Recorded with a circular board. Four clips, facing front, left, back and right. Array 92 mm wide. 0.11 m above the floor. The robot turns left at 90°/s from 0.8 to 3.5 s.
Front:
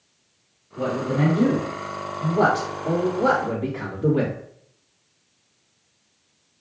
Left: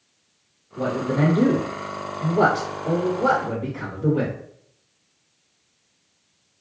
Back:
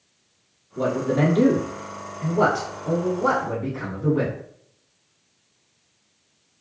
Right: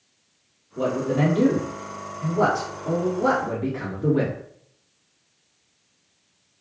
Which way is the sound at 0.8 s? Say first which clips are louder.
Even, back 2 dB; 170° right.